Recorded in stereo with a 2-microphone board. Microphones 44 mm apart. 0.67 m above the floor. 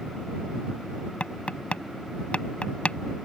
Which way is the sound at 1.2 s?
25° left (ahead or behind).